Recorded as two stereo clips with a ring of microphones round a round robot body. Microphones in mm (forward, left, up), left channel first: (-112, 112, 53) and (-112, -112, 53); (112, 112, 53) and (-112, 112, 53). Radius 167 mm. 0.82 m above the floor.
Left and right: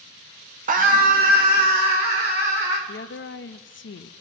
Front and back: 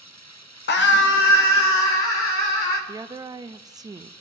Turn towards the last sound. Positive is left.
turn(degrees=105)